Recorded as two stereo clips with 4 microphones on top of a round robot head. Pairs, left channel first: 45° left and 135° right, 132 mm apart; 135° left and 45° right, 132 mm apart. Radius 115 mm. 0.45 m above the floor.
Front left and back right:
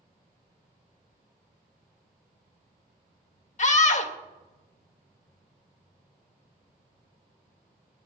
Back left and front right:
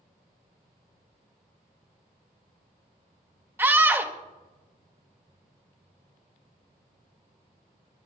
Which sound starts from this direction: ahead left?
A scream, at 3.6 s.